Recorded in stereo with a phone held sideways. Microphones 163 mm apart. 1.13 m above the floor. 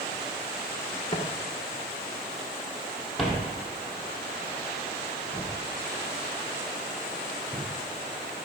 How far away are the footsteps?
About 1.3 m.